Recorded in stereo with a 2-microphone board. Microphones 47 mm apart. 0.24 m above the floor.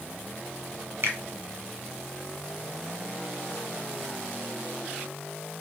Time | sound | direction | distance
1.0 | a finger snap | 60° right (ahead or behind) | 1.3 m